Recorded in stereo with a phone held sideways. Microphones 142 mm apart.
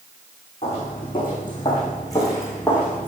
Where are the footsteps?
40° left (ahead or behind), 5.5 m; by 3.1 s 10° left (ahead or behind), 4 m.